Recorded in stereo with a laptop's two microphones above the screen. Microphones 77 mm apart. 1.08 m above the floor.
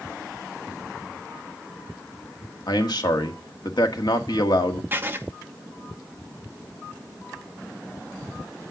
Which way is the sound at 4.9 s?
25° right (ahead or behind).